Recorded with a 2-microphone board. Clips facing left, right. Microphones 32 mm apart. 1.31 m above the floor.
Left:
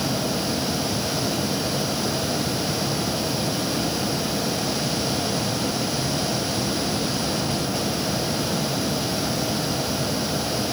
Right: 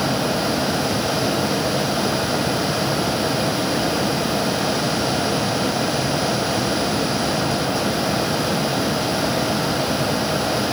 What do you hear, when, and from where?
Only background noise.